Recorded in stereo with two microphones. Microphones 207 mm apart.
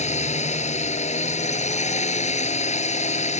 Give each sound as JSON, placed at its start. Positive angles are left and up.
{"t": 0.0, "sound": "a drone", "side_deg": 35}